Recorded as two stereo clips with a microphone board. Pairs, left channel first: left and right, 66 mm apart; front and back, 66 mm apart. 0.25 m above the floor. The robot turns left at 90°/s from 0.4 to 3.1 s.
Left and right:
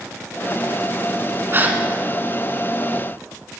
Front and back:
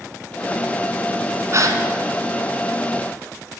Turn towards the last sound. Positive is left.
turn(degrees=80)